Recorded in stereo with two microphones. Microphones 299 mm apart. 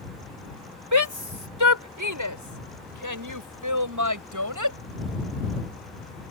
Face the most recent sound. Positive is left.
turn(degrees=-80)